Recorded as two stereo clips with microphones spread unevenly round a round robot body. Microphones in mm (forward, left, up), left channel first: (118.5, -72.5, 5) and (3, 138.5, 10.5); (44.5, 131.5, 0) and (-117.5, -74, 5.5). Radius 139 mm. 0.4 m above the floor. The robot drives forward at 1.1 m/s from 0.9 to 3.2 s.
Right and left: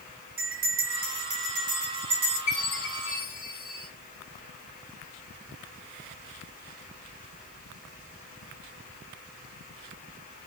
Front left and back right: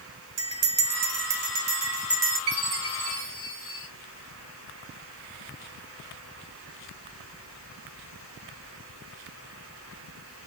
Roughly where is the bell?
Behind.